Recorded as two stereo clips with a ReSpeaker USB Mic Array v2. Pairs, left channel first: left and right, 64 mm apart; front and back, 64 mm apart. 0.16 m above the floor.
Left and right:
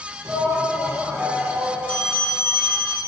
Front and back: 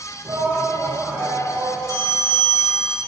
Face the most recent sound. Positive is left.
turn(degrees=160)